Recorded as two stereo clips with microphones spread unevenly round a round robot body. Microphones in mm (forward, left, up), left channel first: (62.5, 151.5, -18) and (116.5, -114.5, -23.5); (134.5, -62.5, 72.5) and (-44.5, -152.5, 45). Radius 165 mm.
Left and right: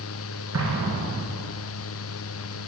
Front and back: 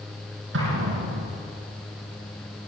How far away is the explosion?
About 6 m.